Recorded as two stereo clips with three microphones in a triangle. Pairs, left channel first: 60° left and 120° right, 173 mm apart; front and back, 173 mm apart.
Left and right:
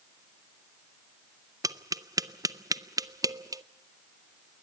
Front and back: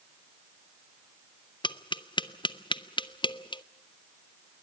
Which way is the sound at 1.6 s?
50° right.